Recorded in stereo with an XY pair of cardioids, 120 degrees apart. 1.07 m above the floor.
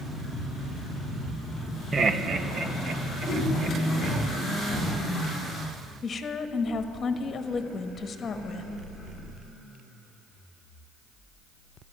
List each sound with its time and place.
1.9 s laughter: 25° right, 0.6 m; by 4.2 s 60° right, 4 m
3.2 s a whoosh: 70° right, 5 m
6.0 s a woman speaking: 40° left, 1.1 m